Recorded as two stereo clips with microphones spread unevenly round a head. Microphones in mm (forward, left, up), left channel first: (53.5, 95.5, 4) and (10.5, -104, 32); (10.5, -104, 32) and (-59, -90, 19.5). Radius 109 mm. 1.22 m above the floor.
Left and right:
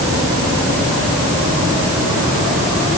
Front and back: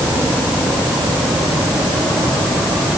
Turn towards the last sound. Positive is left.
No sound to turn to.